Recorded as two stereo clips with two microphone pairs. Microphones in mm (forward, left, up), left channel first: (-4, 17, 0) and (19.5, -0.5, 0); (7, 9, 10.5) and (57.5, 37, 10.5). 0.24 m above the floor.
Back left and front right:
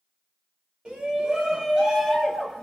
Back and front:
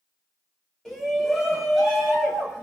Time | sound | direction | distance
0.8 | a shout | 65° right | 1.2 m